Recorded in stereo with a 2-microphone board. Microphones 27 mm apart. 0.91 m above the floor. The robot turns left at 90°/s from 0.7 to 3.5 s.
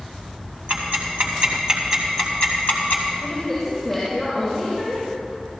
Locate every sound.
0.7 s ticking: 60° right (ahead or behind), 3 m; by 3.0 s 85° left, 3 m
3.2 s a woman speaking: 45° left (ahead or behind), 7 m; by 5.1 s 20° left (ahead or behind), 7 m